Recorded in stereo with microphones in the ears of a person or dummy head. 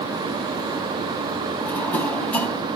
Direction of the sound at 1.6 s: 5° left (ahead or behind).